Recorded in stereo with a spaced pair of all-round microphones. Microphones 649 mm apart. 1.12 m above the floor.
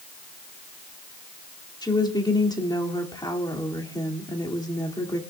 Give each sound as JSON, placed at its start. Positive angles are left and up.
{"t": 1.8, "sound": "a woman speaking", "side_deg": 5, "distance_m": 2.5}